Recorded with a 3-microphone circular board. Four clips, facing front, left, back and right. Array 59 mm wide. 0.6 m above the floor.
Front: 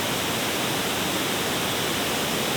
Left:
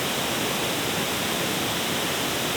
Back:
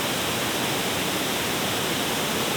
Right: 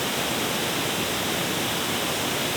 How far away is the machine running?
No machine running in this recording.